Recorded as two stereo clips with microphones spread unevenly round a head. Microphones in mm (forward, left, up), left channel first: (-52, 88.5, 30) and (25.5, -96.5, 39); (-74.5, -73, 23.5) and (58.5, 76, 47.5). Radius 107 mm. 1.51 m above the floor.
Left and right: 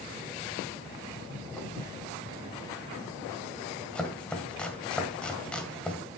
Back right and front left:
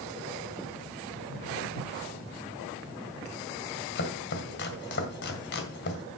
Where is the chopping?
160° right, 1.8 m.